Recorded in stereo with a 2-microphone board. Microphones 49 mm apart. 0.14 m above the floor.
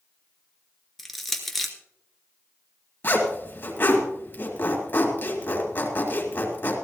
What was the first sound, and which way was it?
Crushing, centre (ahead or behind).